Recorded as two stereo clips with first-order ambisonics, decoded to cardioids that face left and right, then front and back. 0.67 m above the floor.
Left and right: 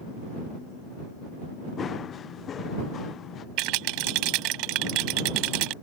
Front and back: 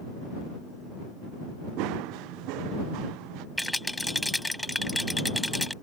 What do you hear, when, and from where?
1.8 s running footsteps: 155° left; by 3.5 s 150° left
3.6 s a rattle: 85° right